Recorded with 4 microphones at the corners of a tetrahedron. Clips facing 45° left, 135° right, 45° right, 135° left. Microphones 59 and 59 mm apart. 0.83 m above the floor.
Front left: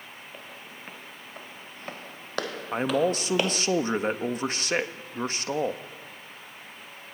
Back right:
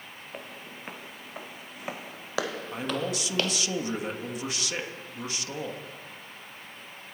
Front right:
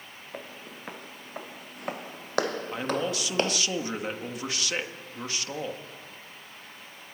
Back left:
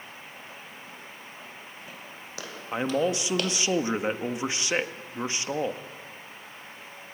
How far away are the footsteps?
About 3 m.